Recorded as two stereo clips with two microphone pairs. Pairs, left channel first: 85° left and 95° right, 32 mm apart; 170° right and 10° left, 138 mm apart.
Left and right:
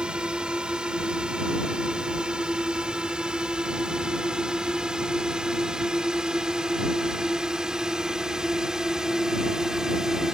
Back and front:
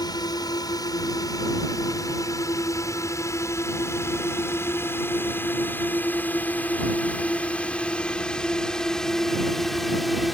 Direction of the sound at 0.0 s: 130° right.